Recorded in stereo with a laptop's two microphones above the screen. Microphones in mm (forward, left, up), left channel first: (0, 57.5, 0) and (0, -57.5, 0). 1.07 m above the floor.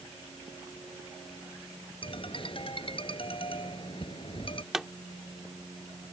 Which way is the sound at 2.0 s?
50° left (ahead or behind).